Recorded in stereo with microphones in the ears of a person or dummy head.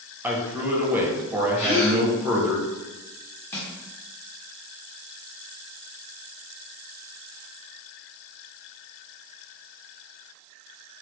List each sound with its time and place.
0.2 s a man speaking: 10° right (ahead or behind), 0.7 m
1.6 s a gasp: 30° left (ahead or behind), 1.1 m
3.5 s crushing: 10° left (ahead or behind), 0.7 m